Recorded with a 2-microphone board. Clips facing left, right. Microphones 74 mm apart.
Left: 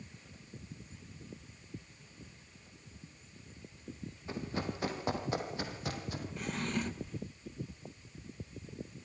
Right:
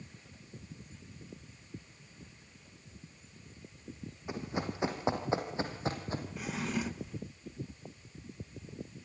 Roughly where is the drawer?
Centre.